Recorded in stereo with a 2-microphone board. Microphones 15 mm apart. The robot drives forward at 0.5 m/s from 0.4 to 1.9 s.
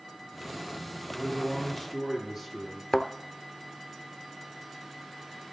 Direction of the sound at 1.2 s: 15° right (ahead or behind).